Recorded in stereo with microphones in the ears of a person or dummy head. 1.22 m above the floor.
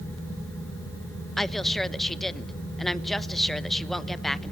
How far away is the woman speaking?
About 1.0 m.